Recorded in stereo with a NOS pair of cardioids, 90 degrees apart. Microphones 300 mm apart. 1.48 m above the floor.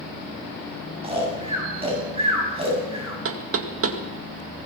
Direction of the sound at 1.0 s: 20° right.